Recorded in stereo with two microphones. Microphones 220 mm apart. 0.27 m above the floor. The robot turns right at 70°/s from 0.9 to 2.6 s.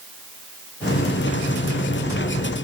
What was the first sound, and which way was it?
Only background noise.